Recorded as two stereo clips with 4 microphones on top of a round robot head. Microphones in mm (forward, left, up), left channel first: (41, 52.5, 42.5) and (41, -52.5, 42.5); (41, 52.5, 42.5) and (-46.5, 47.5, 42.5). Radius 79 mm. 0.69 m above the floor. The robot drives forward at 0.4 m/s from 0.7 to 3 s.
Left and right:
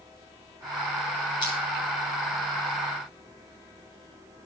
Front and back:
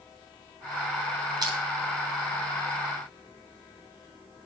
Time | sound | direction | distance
1.4 | crushing | 145° left | 3 m